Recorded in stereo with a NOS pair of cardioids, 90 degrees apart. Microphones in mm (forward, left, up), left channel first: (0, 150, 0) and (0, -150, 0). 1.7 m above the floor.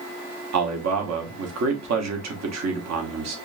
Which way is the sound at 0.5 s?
60° right.